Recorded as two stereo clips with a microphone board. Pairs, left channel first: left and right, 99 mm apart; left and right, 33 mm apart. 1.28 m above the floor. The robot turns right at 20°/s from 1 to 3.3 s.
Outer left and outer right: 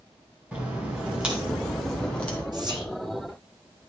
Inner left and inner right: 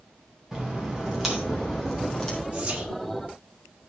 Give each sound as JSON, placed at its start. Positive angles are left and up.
{"t": 0.5, "sound": "a crack", "side_deg": -15, "distance_m": 3.0}
{"t": 2.5, "sound": "whispering", "side_deg": -45, "distance_m": 2.0}